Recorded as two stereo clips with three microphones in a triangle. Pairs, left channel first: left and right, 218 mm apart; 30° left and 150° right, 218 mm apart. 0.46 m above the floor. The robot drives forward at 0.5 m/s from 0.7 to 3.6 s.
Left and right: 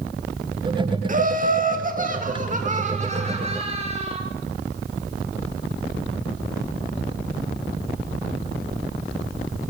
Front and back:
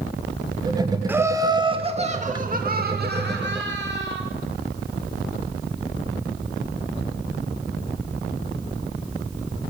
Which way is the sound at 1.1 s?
75° right.